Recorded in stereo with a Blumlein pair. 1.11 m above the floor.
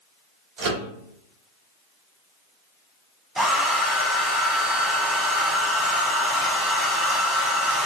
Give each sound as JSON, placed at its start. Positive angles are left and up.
{"t": 0.6, "sound": "a microwave", "azimuth_deg": -45, "distance_m": 1.1}
{"t": 3.4, "sound": "a hair dryer", "azimuth_deg": -5, "distance_m": 0.6}